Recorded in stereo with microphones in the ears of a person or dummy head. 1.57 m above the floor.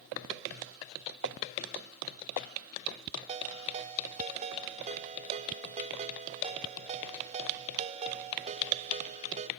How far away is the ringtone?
About 1.9 m.